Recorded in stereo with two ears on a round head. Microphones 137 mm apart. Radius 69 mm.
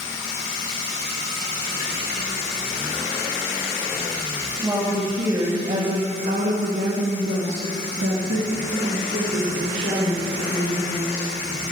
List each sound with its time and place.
4.6 s a woman speaking: 15° right (ahead or behind), 2.5 m; by 11.3 s 55° right (ahead or behind), 5.5 m